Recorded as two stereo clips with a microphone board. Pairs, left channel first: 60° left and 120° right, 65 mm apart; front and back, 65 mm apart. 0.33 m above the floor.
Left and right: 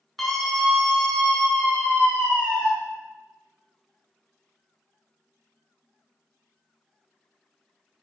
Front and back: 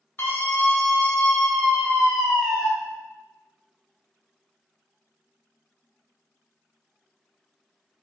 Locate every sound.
0.2 s a scream: 30° right, 1.5 m; by 2.7 s 105° left, 1.6 m